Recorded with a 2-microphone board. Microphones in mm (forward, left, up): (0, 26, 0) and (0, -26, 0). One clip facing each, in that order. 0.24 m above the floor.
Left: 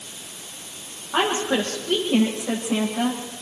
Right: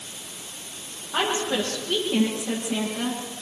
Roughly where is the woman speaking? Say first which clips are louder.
Left 3 dB; left.